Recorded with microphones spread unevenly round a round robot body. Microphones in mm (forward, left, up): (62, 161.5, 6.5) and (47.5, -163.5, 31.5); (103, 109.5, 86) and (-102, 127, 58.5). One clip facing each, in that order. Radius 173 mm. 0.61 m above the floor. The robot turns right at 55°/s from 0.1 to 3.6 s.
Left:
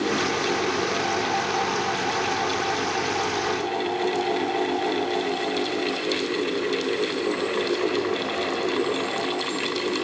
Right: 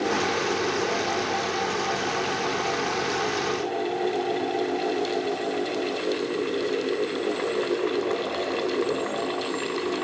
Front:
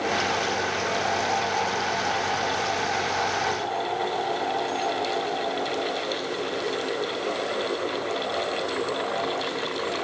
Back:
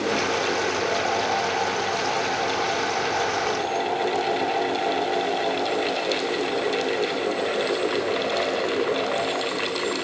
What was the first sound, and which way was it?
Only background noise.